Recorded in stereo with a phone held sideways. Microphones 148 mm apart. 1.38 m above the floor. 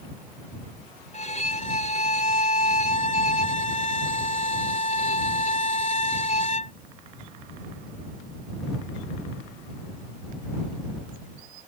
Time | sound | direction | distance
1.1 | a violin | 50° left (ahead or behind) | ?